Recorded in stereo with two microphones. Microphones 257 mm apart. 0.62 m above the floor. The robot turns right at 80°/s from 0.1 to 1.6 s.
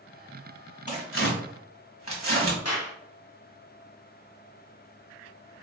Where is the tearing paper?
30° left (ahead or behind), 1.7 m; by 2.5 s 85° left, 1.7 m.